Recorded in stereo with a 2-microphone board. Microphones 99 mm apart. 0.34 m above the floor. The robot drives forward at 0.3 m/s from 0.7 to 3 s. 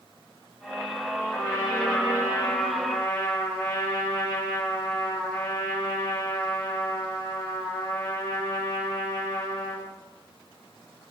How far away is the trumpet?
About 1.0 m.